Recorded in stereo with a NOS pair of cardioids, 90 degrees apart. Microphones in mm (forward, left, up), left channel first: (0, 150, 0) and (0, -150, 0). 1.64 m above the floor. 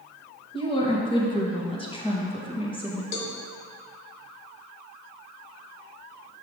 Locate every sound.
0.5 s a woman speaking: 15° left, 1.7 m
3.1 s a cowbell: 70° left, 1.1 m